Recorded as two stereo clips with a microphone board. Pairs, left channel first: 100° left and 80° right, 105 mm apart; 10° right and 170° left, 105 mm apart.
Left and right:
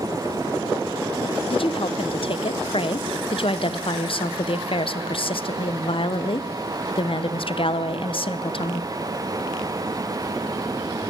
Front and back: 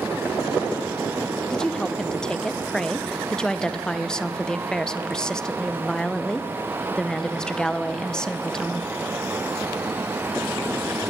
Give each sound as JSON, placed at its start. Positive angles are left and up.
{"t": 1.5, "sound": "a woman speaking", "azimuth_deg": 70, "distance_m": 0.6}